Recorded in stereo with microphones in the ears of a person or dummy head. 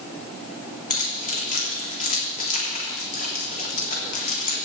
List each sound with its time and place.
0.9 s keys jangling: 40° left (ahead or behind), 3 m